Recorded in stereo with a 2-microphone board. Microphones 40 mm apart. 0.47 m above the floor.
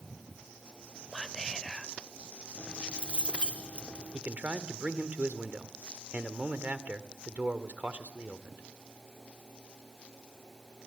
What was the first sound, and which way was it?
Whispering, 10° left (ahead or behind).